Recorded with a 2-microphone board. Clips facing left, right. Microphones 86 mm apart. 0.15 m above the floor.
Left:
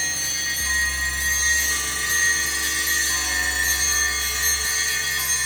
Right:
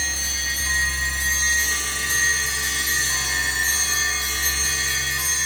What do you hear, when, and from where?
Only background noise.